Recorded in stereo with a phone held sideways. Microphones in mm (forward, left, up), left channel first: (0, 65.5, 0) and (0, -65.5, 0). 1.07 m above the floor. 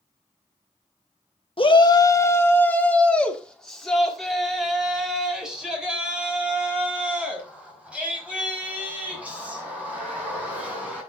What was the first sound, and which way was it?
A shout, 40° left (ahead or behind).